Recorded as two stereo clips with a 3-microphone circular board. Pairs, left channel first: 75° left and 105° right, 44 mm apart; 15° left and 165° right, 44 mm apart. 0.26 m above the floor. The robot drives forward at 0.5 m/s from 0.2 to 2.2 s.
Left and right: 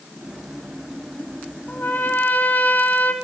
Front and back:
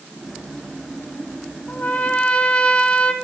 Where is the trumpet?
45° left, 0.9 m; by 3.1 s 65° left, 0.8 m.